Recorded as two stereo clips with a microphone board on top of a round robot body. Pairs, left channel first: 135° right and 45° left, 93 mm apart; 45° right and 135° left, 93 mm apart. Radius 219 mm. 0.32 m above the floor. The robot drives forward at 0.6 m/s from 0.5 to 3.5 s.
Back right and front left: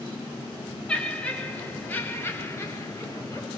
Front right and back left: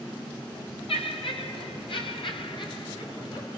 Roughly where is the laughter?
Ahead right.